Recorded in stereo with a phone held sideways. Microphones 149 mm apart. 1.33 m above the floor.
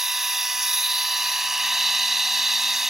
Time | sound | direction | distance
0.0 | a machine running | centre (ahead or behind) | ?